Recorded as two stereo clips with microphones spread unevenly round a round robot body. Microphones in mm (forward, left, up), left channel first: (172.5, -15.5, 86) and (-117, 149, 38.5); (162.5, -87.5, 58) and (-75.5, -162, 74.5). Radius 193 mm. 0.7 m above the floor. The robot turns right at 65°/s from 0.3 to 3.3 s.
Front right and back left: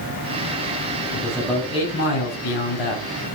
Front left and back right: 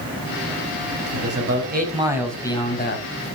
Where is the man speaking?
145° right, 4.5 m; by 3.0 s 20° right, 4.5 m.